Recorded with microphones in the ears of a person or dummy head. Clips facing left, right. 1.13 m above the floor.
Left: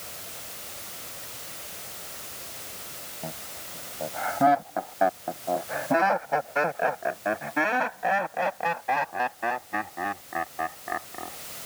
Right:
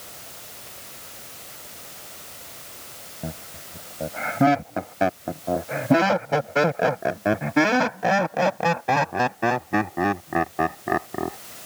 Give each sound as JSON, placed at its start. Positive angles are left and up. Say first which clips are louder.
{"t": 3.2, "sound": "laughter", "louder": "right 4 dB", "side_deg": -40}